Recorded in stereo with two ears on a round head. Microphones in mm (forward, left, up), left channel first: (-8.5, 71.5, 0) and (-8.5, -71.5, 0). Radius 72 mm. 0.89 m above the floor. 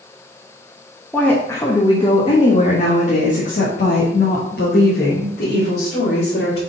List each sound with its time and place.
1.1 s a woman speaking: 5° left (ahead or behind), 1.0 m; by 6.6 s 75° left (ahead or behind), 3 m